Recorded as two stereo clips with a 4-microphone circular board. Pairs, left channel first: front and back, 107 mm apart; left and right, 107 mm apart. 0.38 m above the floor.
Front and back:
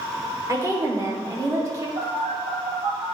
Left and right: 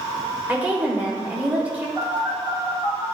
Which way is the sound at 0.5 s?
155° right.